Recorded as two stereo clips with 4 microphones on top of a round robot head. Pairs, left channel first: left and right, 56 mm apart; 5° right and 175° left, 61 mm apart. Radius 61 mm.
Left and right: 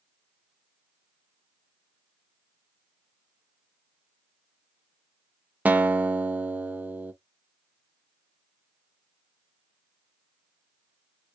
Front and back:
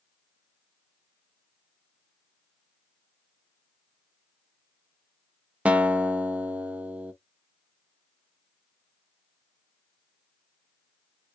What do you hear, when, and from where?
5.7 s a guitar: 130° right, 0.5 m